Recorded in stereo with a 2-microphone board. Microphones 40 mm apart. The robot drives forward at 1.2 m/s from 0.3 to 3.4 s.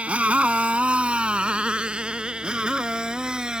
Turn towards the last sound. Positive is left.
turn(degrees=-20)  # may be behind; listen again after turning